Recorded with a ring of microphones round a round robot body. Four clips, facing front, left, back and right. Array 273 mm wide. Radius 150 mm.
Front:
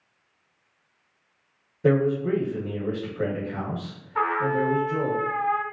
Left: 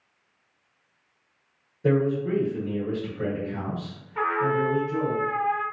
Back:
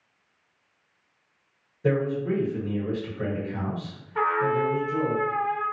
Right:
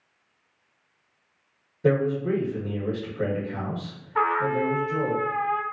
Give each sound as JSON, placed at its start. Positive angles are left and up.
{"t": 1.8, "sound": "a man speaking", "azimuth_deg": -35, "distance_m": 1.5}
{"t": 4.2, "sound": "a trumpet", "azimuth_deg": -75, "distance_m": 1.6}